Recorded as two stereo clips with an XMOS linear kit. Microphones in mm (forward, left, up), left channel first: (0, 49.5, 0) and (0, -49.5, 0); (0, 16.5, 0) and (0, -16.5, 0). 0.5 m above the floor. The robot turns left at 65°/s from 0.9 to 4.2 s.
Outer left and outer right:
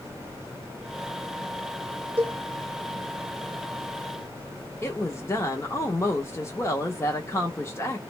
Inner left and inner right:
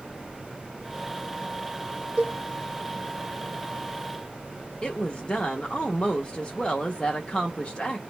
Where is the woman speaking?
25° left (ahead or behind), 0.8 m.